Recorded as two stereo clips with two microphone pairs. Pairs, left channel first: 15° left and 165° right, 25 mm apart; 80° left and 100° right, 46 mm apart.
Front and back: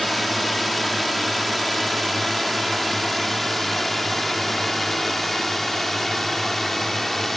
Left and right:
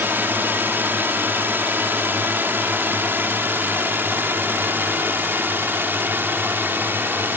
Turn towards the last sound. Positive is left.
turn(degrees=-70)